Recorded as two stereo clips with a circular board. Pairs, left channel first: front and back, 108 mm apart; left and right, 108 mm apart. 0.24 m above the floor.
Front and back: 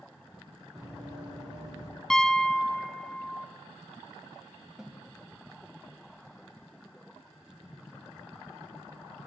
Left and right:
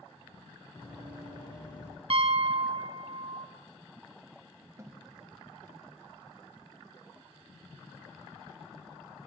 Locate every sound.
0.8 s running footsteps: 125° left, 4.5 m; by 1.9 s 145° left, 4.5 m
2.1 s a piano: 85° right, 0.6 m
4.8 s a snare drum: 100° right, 0.8 m